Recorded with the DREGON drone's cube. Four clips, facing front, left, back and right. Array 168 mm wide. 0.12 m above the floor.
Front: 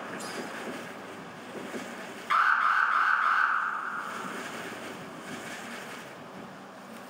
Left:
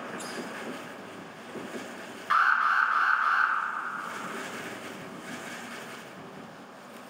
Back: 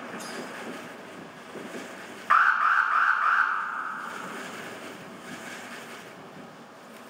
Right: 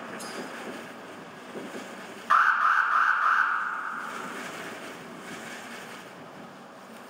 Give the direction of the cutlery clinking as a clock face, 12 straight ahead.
7 o'clock.